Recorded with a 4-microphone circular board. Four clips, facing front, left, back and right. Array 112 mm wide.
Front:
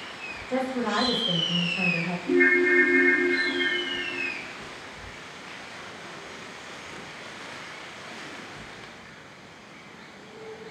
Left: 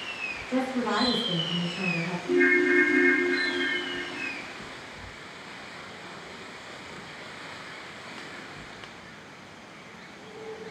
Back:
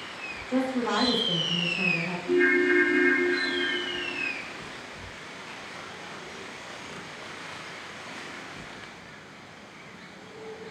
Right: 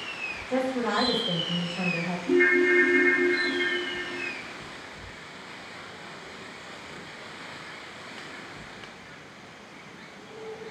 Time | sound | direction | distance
0.5 | a woman speaking | 45° right | 1.8 m
2.3 | a ringtone | 45° right | 1.0 m